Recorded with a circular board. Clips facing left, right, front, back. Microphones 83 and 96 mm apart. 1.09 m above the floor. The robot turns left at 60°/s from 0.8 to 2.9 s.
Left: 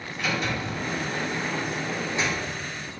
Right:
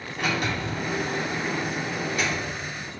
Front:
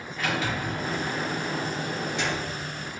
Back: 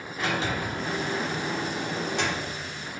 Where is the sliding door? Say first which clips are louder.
Right 1 dB, even; 120° right, 2.5 m; by 2.5 s 140° left, 2.5 m.